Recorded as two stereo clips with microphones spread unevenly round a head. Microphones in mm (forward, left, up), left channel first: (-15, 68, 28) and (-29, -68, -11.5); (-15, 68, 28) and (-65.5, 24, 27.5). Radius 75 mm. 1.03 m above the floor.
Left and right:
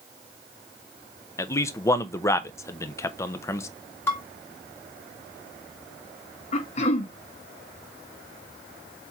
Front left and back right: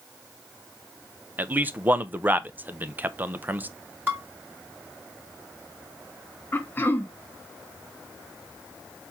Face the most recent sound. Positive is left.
turn(degrees=65)